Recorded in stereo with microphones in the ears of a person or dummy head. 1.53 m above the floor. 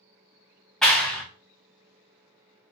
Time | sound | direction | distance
0.8 | a clap | centre (ahead or behind) | 0.6 m